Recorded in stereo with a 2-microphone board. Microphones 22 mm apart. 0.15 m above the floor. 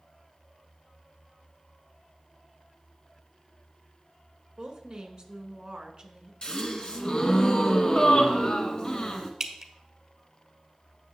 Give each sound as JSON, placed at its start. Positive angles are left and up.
{"t": 4.6, "sound": "a woman speaking", "side_deg": -35, "distance_m": 1.3}
{"t": 6.4, "sound": "a gasp", "side_deg": 40, "distance_m": 1.2}
{"t": 9.4, "sound": "dripping", "side_deg": -25, "distance_m": 0.9}